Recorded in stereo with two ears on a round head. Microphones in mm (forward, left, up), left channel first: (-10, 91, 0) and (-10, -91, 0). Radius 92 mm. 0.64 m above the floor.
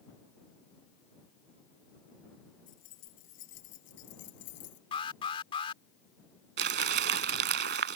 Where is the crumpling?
50° right (ahead or behind).